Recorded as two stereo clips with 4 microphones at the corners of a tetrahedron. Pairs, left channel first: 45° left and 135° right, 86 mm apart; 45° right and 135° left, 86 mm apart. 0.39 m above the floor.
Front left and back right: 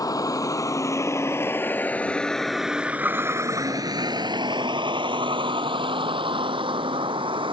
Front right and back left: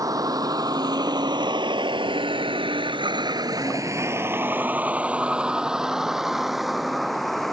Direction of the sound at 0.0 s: 90° left.